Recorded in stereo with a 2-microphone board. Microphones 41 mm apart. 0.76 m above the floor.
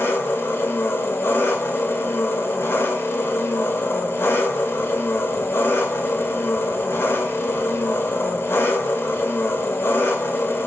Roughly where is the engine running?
Left.